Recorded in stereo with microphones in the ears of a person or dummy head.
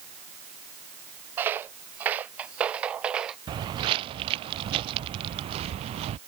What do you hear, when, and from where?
1.4 s footsteps: 15° right (ahead or behind); by 3.4 s 5° right (ahead or behind)
3.5 s footsteps: 30° right (ahead or behind); by 6.2 s 35° right (ahead or behind)